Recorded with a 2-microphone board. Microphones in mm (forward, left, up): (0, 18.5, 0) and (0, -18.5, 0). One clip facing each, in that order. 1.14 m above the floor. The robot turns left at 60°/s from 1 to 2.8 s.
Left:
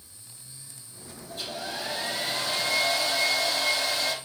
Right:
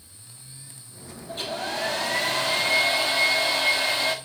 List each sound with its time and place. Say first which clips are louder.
1.3 s a hair dryer: right 5 dB; 50° right, 1.8 m; by 4.2 s 140° right, 1.8 m